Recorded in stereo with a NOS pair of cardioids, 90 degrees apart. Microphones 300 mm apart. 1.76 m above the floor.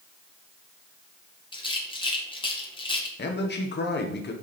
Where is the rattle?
15° left, 1.7 m.